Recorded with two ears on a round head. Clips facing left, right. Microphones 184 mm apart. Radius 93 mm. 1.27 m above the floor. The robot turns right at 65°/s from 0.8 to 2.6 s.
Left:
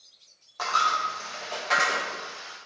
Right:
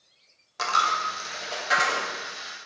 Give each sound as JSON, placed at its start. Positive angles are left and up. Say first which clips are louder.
{"t": 0.6, "sound": "a dropped coin", "louder": "right 1 dB", "side_deg": -30, "distance_m": 0.6}